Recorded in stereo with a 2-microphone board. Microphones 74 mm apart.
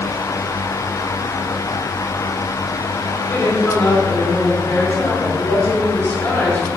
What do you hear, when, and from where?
3.3 s a woman speaking: 10° left (ahead or behind), 4 m